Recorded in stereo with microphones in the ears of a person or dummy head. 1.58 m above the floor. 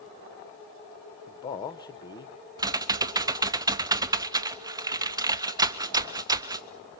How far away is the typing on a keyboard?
About 0.7 m.